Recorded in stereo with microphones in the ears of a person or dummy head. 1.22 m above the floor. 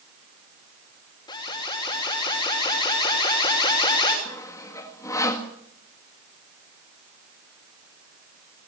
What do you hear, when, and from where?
1.3 s an alarm: 30° left (ahead or behind), 5.5 m
4.2 s sawing: 20° left (ahead or behind), 1.7 m